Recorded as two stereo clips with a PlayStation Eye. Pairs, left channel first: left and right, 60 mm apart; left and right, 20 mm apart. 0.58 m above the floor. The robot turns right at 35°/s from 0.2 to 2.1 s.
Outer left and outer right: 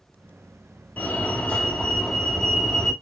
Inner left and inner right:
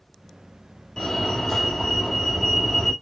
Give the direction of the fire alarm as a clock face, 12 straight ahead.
8 o'clock.